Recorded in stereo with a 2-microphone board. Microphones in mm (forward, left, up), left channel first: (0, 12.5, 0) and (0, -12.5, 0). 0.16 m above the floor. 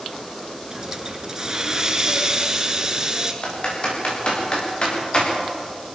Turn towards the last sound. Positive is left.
turn(degrees=45)  # may be behind; listen again after turning